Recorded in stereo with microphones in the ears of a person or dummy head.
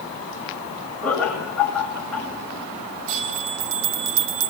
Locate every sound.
1.0 s laughter: 5° left (ahead or behind), 7 m
3.1 s a bell: 70° right (ahead or behind), 0.7 m